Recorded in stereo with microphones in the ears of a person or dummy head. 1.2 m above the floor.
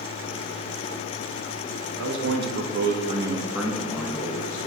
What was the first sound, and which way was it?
A man speaking, 80° right.